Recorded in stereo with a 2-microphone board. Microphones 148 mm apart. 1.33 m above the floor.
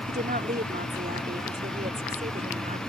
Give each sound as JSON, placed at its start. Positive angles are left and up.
{"t": 0.1, "sound": "a woman speaking", "side_deg": -85}